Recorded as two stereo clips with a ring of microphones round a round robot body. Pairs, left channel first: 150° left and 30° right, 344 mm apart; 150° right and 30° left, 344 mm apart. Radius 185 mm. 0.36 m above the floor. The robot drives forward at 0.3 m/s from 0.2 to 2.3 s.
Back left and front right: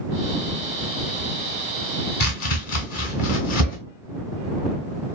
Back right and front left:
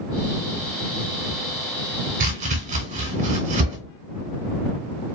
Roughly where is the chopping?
Left.